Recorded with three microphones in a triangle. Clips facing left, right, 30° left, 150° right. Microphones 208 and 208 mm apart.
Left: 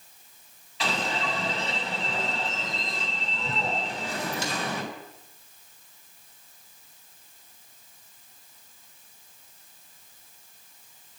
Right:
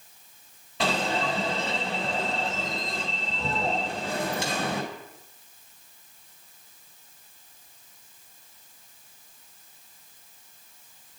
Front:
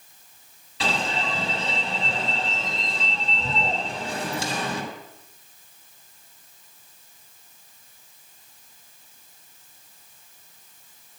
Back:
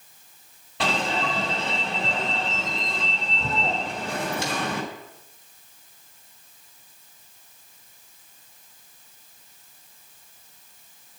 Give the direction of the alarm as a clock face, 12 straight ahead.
4 o'clock.